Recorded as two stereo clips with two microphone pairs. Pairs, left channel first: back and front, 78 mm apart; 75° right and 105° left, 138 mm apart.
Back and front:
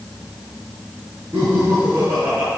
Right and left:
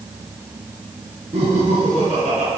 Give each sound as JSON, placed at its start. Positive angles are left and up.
{"t": 1.3, "sound": "laughter", "azimuth_deg": 60, "distance_m": 5.0}